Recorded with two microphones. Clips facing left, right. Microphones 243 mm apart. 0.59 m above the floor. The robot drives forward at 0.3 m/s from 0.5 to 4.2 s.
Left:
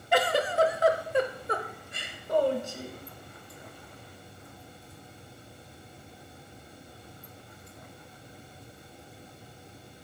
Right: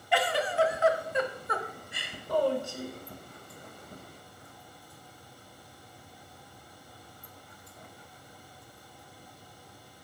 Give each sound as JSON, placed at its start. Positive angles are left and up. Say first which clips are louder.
{"t": 0.1, "sound": "a giggle", "louder": "left 3 dB", "side_deg": 50, "distance_m": 0.5}